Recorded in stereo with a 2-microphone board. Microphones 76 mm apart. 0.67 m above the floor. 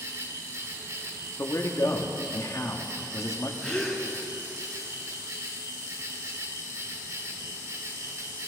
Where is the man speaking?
40° left (ahead or behind), 1.4 m.